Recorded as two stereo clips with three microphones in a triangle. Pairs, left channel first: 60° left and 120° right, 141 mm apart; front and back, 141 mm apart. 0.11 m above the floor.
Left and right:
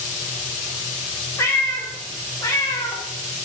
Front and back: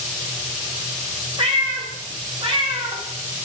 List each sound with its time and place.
1.4 s a cat meowing: 130° left, 4.5 m